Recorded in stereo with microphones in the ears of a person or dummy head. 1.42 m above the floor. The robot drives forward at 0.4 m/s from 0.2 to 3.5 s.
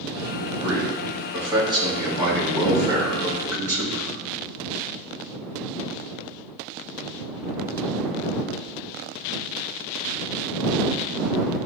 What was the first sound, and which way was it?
A man speaking, 25° right (ahead or behind).